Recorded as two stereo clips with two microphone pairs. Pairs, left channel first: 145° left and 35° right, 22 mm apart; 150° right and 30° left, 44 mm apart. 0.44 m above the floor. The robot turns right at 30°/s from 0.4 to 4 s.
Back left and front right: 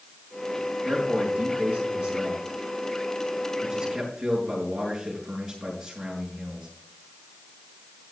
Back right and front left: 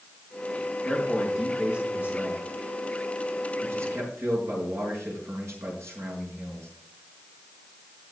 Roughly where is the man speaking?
Ahead right.